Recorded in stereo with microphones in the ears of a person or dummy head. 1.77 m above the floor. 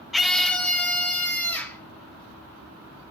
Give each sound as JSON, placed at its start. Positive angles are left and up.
{"t": 0.1, "sound": "a scream", "side_deg": 5, "distance_m": 0.5}